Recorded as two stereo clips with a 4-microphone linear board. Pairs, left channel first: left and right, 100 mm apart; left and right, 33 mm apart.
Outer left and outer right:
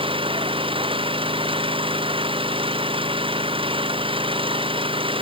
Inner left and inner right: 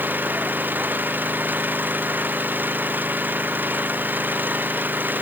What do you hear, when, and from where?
0.0 s an engine running: 60° right (ahead or behind)